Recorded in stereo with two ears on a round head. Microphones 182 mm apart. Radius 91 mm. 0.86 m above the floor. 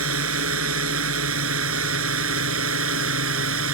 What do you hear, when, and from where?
0.0 s a drone: 80° right; by 3.7 s 75° right (ahead or behind)